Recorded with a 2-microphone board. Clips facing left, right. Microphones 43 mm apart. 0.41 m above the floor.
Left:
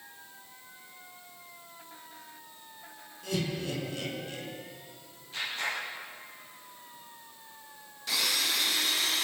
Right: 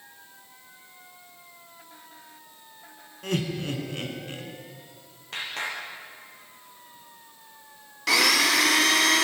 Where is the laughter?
45° right (ahead or behind), 5.5 m; by 4.5 s 40° right (ahead or behind), 5 m.